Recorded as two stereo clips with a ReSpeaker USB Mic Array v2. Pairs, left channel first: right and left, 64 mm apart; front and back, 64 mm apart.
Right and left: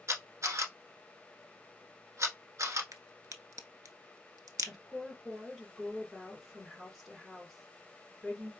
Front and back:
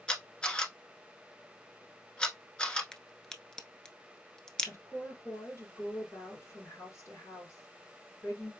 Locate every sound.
0.1 s a camera shutter: 70° left, 1.0 m
2.9 s a crack: 75° left, 0.7 m
4.6 s a woman speaking: straight ahead, 2.5 m